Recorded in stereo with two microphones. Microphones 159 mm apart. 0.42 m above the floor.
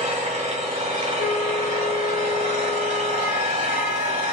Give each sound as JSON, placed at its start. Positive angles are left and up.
{"t": 0.0, "sound": "an engine running", "side_deg": -45, "distance_m": 1.6}
{"t": 1.2, "sound": "a flute", "side_deg": 75, "distance_m": 4.0}